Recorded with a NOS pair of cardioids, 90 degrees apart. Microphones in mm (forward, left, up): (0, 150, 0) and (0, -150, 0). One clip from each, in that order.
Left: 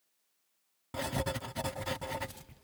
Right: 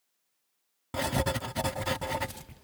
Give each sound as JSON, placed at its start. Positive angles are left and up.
{"t": 0.9, "sound": "writing", "azimuth_deg": -30}